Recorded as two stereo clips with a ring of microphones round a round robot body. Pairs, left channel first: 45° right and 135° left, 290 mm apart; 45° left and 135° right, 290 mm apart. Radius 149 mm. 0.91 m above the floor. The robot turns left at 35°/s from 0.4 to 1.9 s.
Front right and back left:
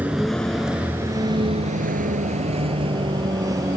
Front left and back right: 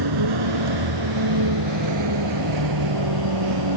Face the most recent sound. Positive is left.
turn(degrees=-145)